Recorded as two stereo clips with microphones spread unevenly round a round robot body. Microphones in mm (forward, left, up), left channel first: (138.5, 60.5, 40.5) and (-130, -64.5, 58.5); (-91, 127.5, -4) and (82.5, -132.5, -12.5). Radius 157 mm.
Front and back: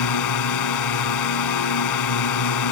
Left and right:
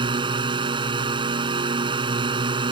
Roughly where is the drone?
Ahead.